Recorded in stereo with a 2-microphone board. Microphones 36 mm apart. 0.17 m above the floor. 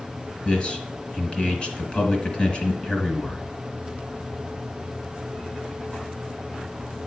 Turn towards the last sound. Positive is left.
turn(degrees=30)  # may be behind; listen again after turning